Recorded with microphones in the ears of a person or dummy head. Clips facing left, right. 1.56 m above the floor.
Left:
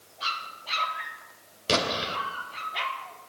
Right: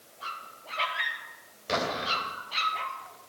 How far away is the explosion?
About 2.5 m.